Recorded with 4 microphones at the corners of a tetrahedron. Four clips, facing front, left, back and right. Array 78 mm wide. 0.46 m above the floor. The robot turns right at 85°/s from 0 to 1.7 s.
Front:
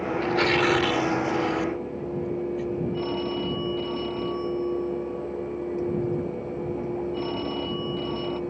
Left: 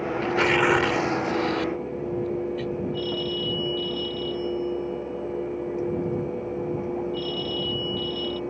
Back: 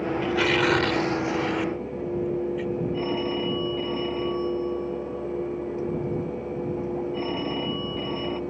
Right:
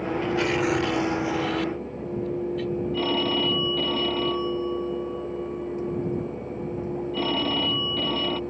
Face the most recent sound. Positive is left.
turn(degrees=-95)